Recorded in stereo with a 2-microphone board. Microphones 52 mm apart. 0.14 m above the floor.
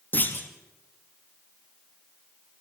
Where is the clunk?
35° left (ahead or behind), 3 m.